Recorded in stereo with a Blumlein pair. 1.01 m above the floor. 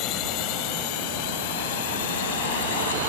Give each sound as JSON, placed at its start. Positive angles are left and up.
{"t": 0.0, "sound": "a drone", "azimuth_deg": 40}